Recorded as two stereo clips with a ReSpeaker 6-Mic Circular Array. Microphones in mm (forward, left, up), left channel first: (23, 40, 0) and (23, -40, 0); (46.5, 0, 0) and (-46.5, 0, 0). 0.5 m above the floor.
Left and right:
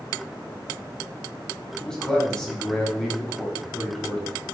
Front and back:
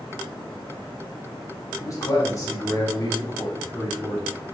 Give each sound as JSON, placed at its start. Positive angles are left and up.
{"t": 1.8, "sound": "a man speaking", "azimuth_deg": 15, "distance_m": 0.9}